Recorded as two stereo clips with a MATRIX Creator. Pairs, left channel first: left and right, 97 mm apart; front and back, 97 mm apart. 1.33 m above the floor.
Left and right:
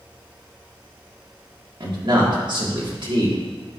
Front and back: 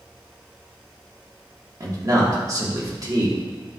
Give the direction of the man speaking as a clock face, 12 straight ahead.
4 o'clock.